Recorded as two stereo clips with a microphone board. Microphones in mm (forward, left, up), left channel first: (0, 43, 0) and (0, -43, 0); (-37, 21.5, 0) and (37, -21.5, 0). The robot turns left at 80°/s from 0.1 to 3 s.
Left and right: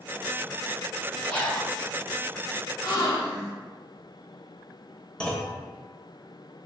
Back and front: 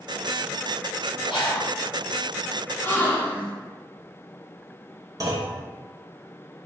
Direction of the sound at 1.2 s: 170° left.